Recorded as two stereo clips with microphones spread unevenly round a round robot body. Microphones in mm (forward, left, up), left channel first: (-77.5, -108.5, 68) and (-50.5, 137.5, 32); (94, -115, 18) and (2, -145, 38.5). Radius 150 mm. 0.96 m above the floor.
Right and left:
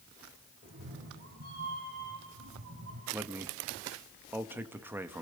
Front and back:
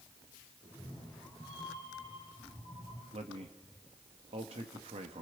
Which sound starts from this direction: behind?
A man speaking, at 3.1 s.